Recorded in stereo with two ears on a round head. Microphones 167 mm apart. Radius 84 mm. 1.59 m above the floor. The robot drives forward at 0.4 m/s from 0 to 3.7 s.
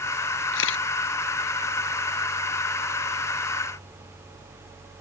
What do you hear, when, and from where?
0.5 s a camera shutter: 80° left